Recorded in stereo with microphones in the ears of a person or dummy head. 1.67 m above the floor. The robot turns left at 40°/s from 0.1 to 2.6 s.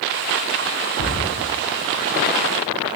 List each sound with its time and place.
1.0 s a cupboard door: 45° left (ahead or behind), 3 m; by 1.2 s 55° left (ahead or behind), 3 m